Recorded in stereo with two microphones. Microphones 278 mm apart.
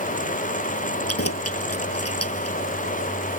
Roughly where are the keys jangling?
Left.